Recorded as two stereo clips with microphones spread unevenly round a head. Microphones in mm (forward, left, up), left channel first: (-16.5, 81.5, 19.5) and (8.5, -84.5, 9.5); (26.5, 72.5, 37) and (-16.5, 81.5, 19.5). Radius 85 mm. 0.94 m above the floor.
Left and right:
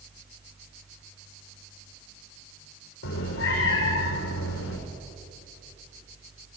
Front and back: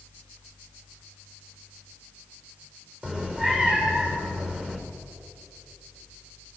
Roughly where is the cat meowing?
Left.